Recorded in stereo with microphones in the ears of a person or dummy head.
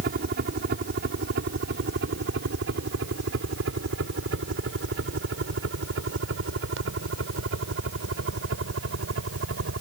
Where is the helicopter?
60° right (ahead or behind); by 9.8 s 80° right.